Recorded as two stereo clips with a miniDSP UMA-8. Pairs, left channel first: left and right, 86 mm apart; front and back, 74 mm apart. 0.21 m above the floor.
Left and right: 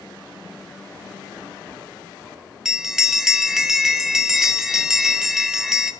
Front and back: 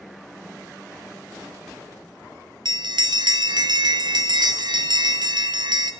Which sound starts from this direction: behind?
A bell, at 2.6 s.